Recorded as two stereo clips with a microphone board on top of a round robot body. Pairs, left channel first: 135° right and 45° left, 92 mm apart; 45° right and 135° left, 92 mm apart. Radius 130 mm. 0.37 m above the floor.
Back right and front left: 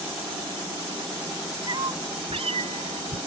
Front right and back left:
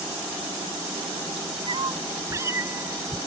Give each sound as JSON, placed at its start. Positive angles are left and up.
{"t": 1.7, "sound": "a cat meowing", "azimuth_deg": 95}